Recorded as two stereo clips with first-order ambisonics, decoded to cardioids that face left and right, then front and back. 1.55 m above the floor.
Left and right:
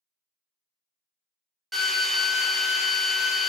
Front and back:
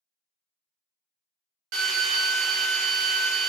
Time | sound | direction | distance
1.7 | a drill | 175° right | 0.8 m